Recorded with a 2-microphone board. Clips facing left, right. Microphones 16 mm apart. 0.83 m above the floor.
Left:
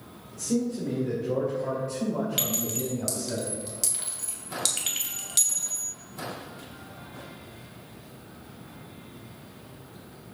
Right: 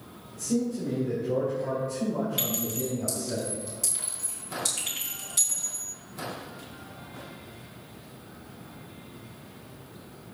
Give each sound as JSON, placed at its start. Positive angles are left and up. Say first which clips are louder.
{"t": 0.3, "sound": "a man speaking", "louder": "even", "side_deg": 70, "distance_m": 2.5}
{"t": 2.4, "sound": "a clink", "louder": "left 1 dB", "side_deg": 85, "distance_m": 2.5}